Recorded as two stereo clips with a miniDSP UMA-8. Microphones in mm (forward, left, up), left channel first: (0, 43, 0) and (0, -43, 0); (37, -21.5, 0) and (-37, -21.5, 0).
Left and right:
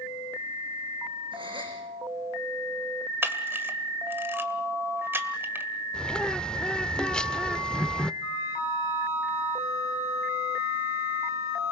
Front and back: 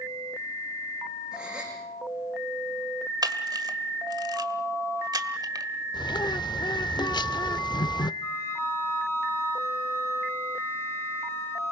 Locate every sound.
1.3 s a gasp: 100° right, 6 m
3.2 s a camera shutter: 155° right, 1.5 m
5.9 s a bird: 10° left, 0.5 m
8.2 s a flute: 45° left, 10 m